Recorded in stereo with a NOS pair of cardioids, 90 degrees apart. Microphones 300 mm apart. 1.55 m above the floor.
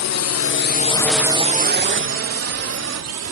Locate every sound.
0.0 s a drone: 65° left; by 3.3 s 60° right